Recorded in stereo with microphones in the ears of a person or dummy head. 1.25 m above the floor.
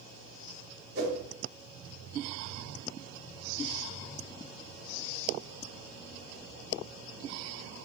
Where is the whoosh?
60° right (ahead or behind), 1.1 m.